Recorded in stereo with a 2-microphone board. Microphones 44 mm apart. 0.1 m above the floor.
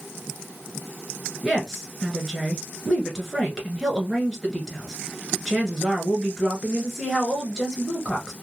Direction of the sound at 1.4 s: Centre (ahead or behind).